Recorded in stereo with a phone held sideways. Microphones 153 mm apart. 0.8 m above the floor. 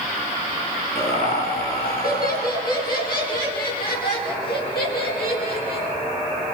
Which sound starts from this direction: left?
Laughter, at 0.9 s.